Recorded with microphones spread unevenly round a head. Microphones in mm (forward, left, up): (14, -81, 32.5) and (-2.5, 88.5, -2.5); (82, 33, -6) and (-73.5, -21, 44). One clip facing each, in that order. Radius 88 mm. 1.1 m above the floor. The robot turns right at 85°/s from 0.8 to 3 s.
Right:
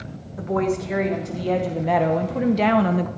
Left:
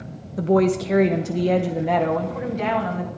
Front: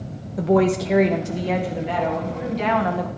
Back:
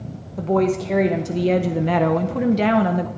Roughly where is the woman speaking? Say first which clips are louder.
Left 5 dB, front 1 dB; left.